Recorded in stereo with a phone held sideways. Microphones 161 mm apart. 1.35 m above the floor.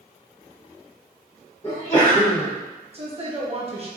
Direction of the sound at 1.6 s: 30° left (ahead or behind).